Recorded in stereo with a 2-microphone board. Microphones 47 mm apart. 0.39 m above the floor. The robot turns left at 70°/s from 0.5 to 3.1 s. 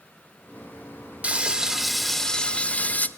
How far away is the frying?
About 1.1 m.